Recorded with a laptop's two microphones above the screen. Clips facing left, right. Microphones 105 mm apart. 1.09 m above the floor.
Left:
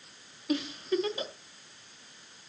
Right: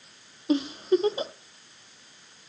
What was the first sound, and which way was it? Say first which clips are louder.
A giggle: right 7 dB; 25° right (ahead or behind).